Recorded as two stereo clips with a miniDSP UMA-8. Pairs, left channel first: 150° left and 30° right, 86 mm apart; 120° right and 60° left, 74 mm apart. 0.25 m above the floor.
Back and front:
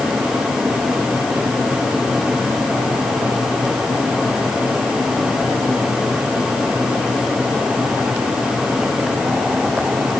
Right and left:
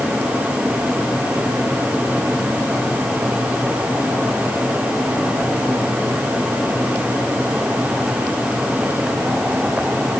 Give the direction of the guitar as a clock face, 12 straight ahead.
I don't hear a guitar.